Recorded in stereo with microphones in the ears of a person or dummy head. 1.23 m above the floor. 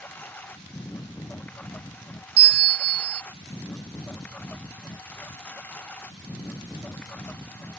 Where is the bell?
45° right (ahead or behind).